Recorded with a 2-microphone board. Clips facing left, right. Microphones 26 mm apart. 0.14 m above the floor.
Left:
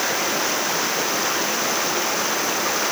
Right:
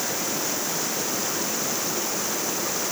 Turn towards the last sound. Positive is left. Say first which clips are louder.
# left 6 dB
turn(degrees=35)  # may be behind; listen again after turning